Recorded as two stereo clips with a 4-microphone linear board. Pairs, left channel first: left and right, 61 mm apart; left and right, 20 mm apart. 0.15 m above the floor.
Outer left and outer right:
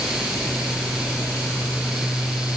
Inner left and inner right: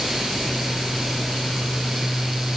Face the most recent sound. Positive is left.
No sound to turn to.